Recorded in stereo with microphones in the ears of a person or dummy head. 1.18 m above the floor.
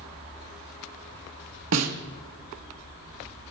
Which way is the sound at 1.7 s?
80° right.